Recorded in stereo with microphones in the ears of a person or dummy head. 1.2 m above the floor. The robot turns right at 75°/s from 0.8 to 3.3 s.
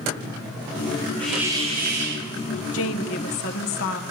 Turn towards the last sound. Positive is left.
turn(degrees=125)